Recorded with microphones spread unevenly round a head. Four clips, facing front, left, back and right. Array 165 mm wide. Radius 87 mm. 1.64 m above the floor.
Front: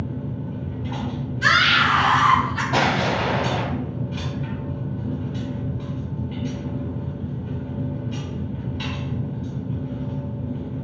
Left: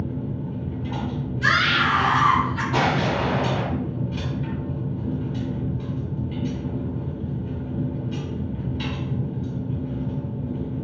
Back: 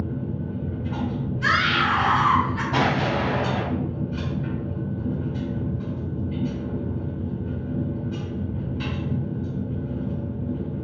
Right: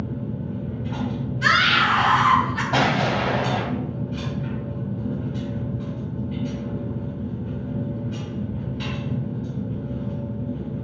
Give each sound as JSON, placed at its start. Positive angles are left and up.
{"t": 0.0, "sound": "a machine running", "azimuth_deg": 35, "distance_m": 1.8}
{"t": 1.4, "sound": "a scream", "azimuth_deg": -50, "distance_m": 1.8}
{"t": 2.7, "sound": "an explosion", "azimuth_deg": -60, "distance_m": 1.4}